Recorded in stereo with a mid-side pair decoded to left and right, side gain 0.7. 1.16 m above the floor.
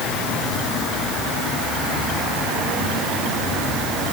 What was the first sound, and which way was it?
Only background noise.